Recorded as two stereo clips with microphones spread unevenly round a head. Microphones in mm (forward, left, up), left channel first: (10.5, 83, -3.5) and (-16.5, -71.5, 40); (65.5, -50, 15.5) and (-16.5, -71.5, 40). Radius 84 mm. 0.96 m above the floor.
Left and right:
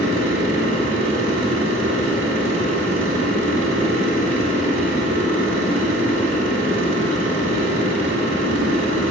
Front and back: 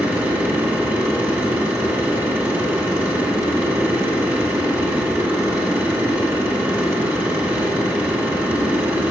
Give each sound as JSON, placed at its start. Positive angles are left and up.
{"t": 0.0, "sound": "a machine running", "azimuth_deg": -95, "distance_m": 3.0}